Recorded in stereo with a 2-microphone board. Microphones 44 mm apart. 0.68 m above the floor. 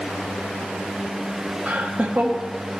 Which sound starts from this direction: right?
Laughter, at 1.7 s.